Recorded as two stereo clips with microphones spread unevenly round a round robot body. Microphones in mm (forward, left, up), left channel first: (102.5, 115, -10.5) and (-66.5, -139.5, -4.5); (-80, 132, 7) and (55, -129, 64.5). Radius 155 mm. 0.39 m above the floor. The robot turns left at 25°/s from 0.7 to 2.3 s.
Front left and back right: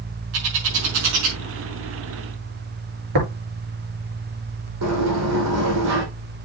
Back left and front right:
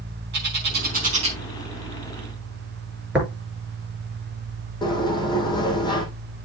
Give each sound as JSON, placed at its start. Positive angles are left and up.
{"t": 0.3, "sound": "a bird", "azimuth_deg": -120, "distance_m": 5.0}
{"t": 3.1, "sound": "tapping", "azimuth_deg": -150, "distance_m": 6.0}
{"t": 4.8, "sound": "a sliding door", "azimuth_deg": -165, "distance_m": 4.0}